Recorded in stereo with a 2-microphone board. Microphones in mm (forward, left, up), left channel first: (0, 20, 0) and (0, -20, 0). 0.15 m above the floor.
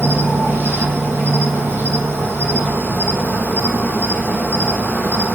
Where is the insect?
75° right (ahead or behind), 3 m.